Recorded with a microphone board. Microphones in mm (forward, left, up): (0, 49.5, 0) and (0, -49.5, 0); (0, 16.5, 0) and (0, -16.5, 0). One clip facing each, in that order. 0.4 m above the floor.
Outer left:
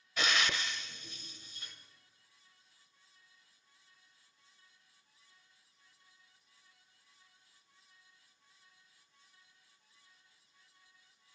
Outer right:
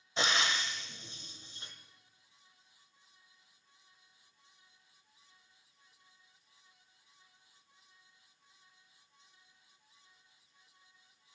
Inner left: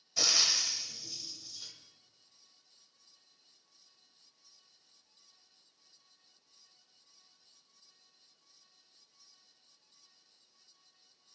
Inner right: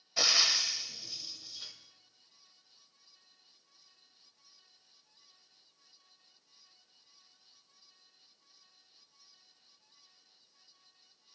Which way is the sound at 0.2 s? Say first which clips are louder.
Outer right 1 dB, inner right 2 dB; 30° right (ahead or behind).